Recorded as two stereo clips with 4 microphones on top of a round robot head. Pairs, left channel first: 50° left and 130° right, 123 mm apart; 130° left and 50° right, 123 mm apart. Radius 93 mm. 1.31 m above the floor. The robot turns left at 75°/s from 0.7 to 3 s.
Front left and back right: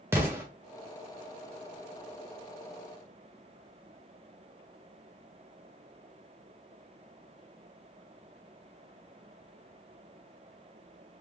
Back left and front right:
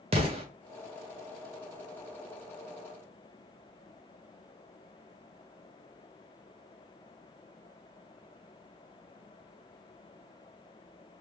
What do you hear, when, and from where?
0.1 s an explosion: 70° right, 0.6 m